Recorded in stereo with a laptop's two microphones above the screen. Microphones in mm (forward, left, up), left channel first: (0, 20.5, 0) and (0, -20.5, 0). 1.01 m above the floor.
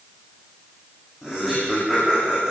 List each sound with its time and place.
1.2 s laughter: 10° right (ahead or behind), 5.5 m